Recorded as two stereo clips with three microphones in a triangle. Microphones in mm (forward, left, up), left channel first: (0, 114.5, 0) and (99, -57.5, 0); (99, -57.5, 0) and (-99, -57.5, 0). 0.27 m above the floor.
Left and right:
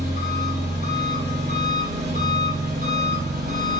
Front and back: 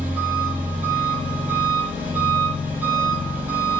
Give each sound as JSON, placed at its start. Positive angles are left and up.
{"t": 0.0, "sound": "an engine running", "azimuth_deg": -100, "distance_m": 5.5}